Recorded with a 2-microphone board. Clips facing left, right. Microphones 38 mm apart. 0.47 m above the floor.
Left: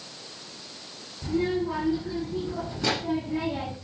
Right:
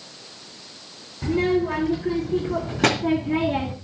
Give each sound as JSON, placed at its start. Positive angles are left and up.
{"t": 1.2, "sound": "a child speaking", "side_deg": -65, "distance_m": 4.0}